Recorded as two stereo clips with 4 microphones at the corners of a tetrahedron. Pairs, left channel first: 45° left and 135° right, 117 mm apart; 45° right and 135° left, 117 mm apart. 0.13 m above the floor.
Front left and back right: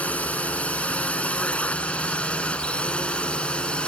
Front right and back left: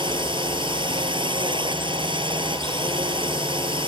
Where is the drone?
120° left; by 3.9 s 125° left.